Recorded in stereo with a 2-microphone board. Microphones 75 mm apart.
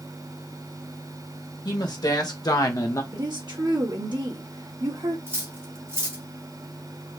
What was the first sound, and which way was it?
A woman speaking, 65° left (ahead or behind).